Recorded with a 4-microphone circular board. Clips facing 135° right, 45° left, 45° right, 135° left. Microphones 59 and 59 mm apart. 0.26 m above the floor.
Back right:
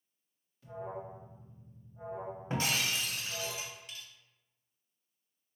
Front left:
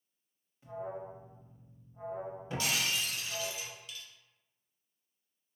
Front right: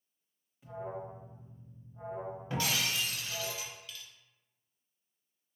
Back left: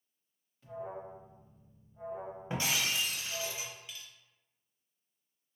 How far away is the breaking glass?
About 0.6 m.